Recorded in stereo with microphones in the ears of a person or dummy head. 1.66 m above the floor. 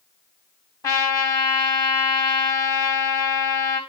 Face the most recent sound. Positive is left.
turn(degrees=15)  # may be behind; listen again after turning